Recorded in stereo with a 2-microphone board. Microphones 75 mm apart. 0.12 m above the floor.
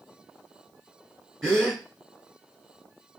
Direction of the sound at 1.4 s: 5° left (ahead or behind).